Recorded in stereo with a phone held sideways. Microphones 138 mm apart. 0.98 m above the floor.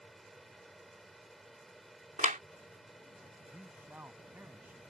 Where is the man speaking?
15° right (ahead or behind).